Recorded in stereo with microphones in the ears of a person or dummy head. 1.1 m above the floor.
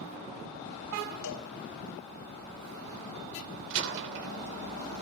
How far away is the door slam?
About 3 m.